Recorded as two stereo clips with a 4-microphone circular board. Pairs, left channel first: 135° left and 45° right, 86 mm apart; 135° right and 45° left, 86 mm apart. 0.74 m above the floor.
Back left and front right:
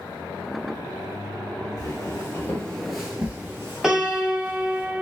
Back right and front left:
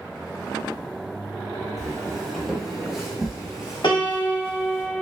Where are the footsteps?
135° left, 0.9 m; by 4.8 s 40° right, 1.2 m.